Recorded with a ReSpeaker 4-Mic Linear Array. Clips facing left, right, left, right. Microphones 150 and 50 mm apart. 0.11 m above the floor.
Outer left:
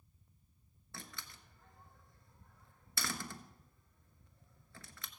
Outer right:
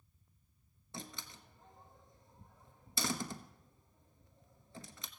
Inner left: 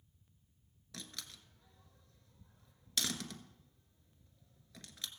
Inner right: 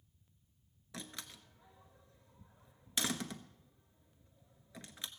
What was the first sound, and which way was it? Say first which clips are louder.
A door slam: outer right 4 dB, inner right 2 dB; 20° right (ahead or behind).